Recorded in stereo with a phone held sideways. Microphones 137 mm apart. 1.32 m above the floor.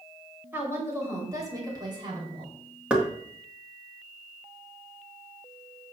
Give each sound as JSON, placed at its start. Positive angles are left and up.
{"t": 0.5, "sound": "a woman speaking", "side_deg": -15, "distance_m": 4.5}
{"t": 2.9, "sound": "knocking", "side_deg": -10, "distance_m": 2.0}